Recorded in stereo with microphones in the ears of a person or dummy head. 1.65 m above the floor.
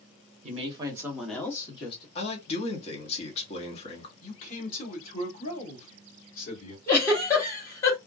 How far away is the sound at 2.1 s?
About 1.1 m.